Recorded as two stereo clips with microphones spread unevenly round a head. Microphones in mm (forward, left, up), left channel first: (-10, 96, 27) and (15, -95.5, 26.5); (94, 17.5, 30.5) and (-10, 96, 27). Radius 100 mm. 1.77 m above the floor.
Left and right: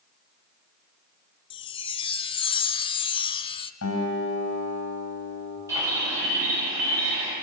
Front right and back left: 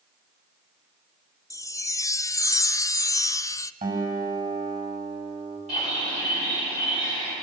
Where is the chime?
30° left, 0.6 m.